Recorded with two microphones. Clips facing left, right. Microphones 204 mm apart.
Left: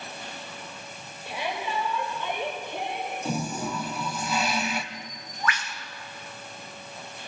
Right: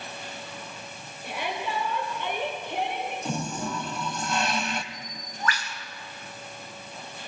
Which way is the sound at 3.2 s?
5° left (ahead or behind).